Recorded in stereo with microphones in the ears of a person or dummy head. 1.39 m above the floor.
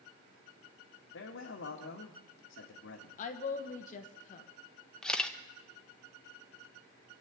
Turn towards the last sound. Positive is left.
turn(degrees=5)  # may be behind; listen again after turning